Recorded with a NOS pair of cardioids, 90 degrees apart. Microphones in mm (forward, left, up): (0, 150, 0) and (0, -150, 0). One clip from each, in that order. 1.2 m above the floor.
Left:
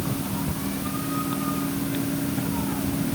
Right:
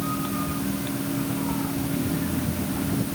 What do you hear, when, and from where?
Only background noise.